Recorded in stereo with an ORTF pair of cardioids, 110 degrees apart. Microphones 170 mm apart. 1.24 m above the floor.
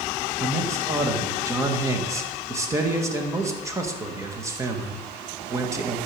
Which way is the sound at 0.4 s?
15° right.